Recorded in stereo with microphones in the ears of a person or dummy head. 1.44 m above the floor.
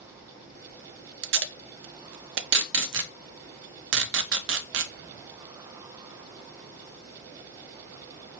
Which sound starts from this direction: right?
Tape being pulled, at 1.2 s.